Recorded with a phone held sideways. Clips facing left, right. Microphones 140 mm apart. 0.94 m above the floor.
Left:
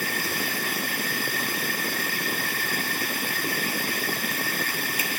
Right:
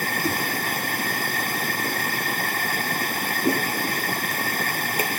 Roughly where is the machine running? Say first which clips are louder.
Right 4 dB; right.